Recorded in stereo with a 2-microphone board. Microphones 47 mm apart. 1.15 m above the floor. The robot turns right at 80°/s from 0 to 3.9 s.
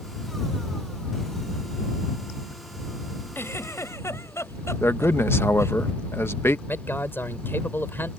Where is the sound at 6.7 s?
50° left (ahead or behind).